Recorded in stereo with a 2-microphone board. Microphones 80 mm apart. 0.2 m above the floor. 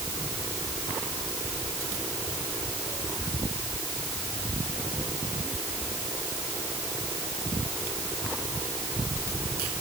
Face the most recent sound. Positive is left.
No sound to turn to.